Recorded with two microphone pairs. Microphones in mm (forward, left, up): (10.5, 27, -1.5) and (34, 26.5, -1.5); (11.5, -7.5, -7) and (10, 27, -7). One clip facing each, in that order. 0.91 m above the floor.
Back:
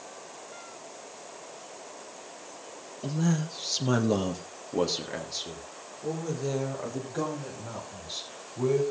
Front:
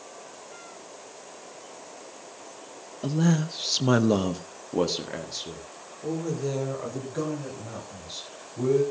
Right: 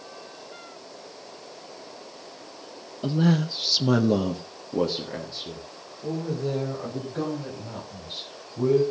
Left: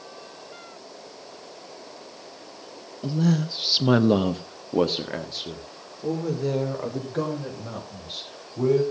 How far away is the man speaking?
About 0.8 m.